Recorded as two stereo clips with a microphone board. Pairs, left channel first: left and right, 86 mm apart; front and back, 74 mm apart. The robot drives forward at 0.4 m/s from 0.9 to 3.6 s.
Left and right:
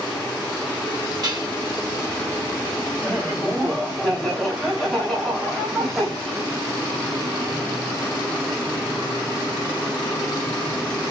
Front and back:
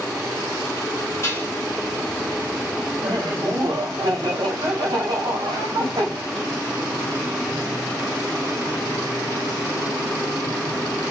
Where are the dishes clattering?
55° right, 2.5 m.